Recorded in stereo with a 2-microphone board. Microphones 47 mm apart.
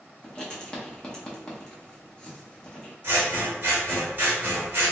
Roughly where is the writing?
Centre.